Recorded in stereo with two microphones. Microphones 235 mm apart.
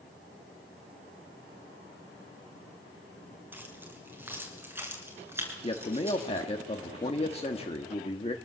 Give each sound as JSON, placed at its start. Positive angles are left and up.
{"t": 3.5, "sound": "keys jangling", "side_deg": -10, "distance_m": 5.5}
{"t": 5.6, "sound": "a man speaking", "side_deg": 25, "distance_m": 1.4}